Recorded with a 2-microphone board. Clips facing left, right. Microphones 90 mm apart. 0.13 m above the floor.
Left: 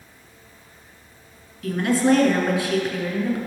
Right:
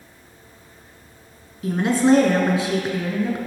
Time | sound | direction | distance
1.6 | a woman speaking | 25° right (ahead or behind) | 1.2 m